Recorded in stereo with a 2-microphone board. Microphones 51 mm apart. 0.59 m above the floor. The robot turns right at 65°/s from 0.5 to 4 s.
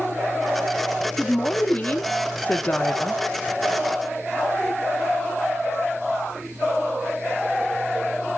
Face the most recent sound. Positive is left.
turn(degrees=-150)